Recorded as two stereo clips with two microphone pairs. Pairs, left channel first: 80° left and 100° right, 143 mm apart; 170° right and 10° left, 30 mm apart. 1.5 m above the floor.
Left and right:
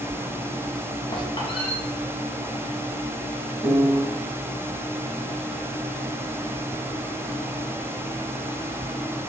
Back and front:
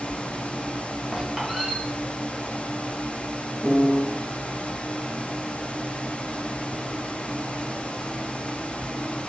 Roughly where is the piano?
Ahead.